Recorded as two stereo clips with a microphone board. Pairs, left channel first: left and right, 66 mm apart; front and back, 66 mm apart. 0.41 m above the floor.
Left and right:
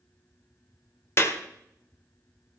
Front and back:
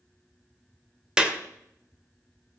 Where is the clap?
110° left, 1.3 m.